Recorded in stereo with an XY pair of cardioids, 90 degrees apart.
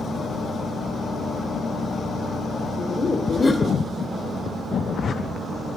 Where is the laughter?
30° left, 0.5 m.